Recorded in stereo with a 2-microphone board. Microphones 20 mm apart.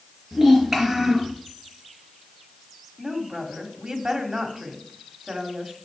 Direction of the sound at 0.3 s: 10° right (ahead or behind).